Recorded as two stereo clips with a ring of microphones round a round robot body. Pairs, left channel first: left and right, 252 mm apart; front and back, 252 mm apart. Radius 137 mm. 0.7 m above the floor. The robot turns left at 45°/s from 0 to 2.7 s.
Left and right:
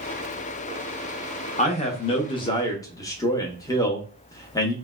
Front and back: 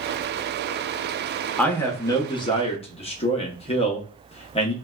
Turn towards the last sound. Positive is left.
turn(degrees=30)